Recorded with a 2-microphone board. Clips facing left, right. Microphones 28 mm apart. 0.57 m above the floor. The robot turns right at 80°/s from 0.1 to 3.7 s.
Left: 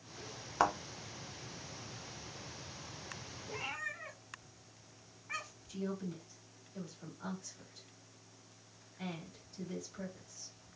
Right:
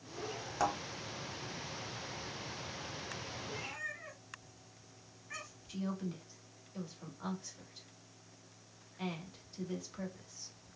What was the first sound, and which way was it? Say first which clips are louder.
A thud: left 3 dB; 35° left (ahead or behind).